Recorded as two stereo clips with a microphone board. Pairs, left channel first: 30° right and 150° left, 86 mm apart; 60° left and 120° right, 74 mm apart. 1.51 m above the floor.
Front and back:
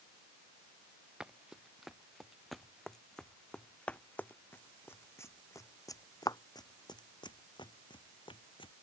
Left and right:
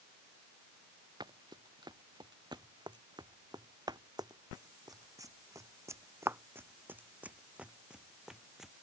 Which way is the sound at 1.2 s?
125° right.